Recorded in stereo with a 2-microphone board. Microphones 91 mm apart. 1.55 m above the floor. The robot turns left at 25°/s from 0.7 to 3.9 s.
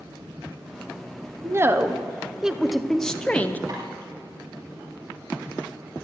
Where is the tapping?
50° right (ahead or behind), 6.5 m.